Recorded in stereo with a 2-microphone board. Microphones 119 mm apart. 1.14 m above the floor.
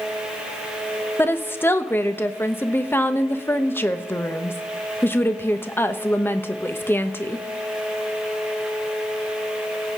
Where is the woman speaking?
20° left (ahead or behind), 1.0 m.